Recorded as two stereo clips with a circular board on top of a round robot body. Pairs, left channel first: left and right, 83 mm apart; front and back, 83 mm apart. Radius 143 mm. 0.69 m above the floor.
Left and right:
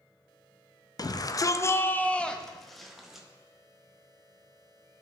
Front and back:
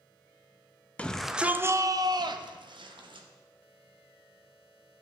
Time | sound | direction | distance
1.0 | a shout | 70° left | 0.7 m